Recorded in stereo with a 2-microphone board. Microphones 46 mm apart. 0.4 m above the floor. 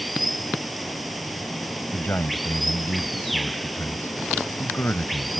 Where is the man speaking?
50° left (ahead or behind).